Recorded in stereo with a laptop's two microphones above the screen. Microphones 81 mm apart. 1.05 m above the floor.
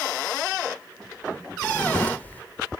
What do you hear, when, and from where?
1.6 s a drawer: 20° left (ahead or behind)